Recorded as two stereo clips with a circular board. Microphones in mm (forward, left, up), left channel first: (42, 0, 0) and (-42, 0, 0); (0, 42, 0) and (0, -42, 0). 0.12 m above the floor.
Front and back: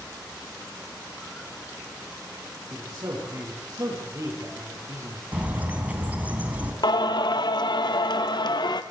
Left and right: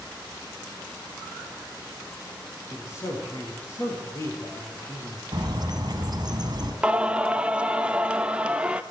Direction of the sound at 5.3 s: 110° right.